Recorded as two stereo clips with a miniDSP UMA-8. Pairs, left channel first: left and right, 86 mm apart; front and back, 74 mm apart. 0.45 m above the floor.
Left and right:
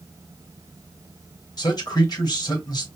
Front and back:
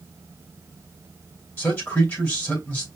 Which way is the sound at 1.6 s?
60° left.